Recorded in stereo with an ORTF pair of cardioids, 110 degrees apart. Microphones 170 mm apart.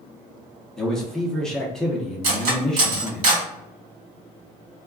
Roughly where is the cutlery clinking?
Ahead right.